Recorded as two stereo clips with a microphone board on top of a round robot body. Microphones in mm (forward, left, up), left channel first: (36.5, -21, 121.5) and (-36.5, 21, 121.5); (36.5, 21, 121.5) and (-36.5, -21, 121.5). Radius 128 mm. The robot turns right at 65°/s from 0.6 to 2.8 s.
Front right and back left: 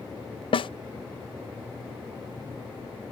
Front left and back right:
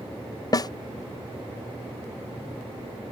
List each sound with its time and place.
0.5 s a snare drum: 15° right; by 0.7 s 10° right